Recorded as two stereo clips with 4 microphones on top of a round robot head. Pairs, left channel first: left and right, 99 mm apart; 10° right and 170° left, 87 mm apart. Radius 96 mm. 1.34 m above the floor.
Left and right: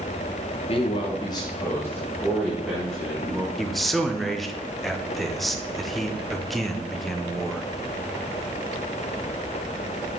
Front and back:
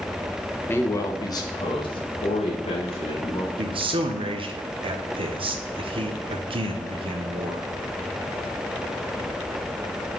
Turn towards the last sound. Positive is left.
turn(degrees=180)